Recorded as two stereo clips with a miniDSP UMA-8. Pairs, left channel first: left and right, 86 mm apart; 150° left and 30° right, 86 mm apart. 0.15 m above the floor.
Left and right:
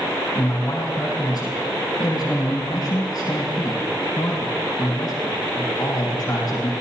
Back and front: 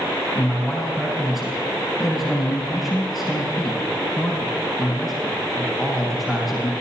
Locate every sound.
0.3 s a man speaking: 55° left, 3 m